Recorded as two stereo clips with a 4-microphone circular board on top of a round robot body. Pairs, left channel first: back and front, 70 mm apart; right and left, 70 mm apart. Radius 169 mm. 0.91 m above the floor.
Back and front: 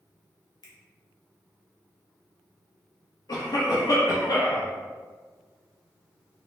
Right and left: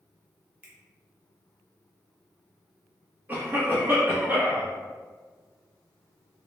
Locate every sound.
0.6 s a finger snap: 150° left, 1.0 m
3.3 s a cough: 150° left, 0.8 m